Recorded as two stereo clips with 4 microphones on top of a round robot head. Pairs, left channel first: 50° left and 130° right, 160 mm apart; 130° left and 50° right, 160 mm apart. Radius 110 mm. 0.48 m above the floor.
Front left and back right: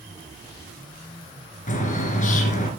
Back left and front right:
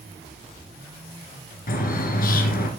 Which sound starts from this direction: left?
A bird, at 1.7 s.